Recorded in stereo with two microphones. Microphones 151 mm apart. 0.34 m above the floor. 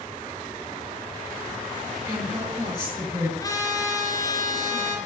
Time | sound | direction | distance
2.1 | a woman speaking | 15° right (ahead or behind) | 6 m
3.4 | a trumpet | 25° left (ahead or behind) | 2.5 m